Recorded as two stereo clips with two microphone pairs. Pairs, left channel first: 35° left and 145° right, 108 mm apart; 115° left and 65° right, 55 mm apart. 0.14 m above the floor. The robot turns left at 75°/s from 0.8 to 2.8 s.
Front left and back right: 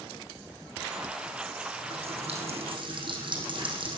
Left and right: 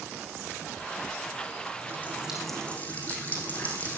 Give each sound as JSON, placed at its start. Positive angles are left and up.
{"t": 1.8, "sound": "a running tap", "azimuth_deg": -115, "distance_m": 5.0}